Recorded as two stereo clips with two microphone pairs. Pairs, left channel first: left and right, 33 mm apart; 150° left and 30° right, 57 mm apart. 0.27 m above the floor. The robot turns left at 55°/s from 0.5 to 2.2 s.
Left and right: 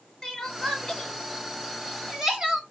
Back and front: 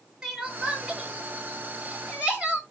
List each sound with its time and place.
0.2 s crying: 45° left, 1.0 m; by 2.6 s 50° right, 1.0 m